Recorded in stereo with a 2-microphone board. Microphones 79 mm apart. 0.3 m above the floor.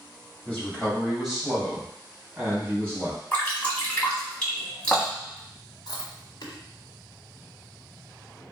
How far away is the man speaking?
About 1.6 m.